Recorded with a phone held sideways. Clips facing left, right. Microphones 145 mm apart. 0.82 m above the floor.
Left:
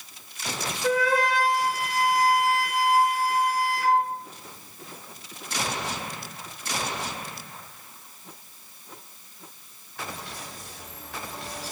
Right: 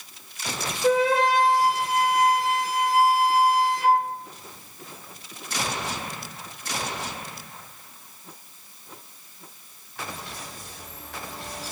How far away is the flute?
About 1.7 m.